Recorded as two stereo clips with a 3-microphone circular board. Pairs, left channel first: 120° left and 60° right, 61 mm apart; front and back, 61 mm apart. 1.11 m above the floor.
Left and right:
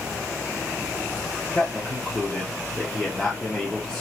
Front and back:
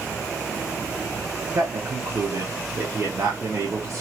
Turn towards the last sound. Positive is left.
turn(degrees=-165)